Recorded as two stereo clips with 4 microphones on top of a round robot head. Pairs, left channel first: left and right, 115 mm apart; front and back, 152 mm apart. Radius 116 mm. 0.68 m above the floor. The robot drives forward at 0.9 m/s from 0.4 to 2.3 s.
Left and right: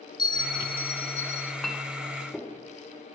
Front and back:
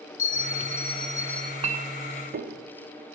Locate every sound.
0.2 s a bell: 35° left, 1.3 m; by 1.5 s 95° left, 0.9 m
1.6 s a clink: straight behind, 0.5 m